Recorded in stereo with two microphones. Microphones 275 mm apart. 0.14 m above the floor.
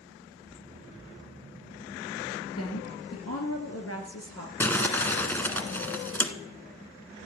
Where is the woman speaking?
60° left (ahead or behind), 3 m.